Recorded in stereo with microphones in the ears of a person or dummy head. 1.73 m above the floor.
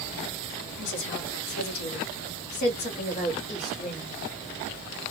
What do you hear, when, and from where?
0.8 s a woman speaking: 60° left (ahead or behind), 1.3 m; by 4.1 s 15° left (ahead or behind), 1.2 m